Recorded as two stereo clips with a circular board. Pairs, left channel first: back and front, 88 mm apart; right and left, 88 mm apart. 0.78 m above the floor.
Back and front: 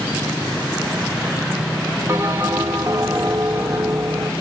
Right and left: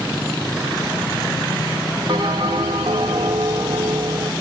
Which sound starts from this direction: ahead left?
A bell, at 2.1 s.